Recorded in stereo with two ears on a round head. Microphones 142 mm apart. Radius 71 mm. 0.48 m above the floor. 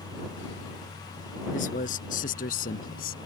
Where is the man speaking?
55° left (ahead or behind); by 3.2 s 65° left (ahead or behind).